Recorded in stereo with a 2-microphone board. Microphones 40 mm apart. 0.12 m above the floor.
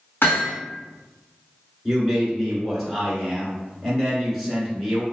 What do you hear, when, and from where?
0.2 s hammering: 80° left, 1.6 m
1.9 s a man speaking: 5° left (ahead or behind), 1.1 m